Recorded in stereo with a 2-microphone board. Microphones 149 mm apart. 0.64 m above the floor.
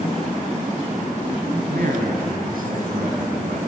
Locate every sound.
1.7 s a man speaking: 80° right, 4 m; by 3.6 s 70° right (ahead or behind), 4.5 m